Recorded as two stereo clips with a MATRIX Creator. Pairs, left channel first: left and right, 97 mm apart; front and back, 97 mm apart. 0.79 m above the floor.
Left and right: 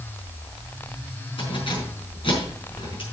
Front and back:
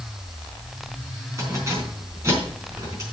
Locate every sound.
1.4 s keys jangling: 120° left, 5 m